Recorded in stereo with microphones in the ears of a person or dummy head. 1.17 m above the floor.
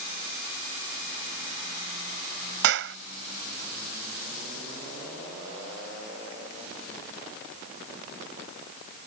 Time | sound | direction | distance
2.6 | a clap | 60° right (ahead or behind) | ?